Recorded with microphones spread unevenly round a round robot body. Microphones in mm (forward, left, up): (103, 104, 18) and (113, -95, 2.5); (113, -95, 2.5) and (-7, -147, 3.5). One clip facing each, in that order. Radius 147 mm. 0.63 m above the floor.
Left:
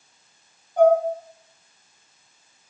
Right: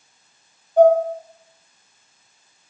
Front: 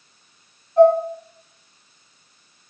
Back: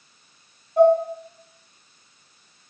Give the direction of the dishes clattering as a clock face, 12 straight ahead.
6 o'clock.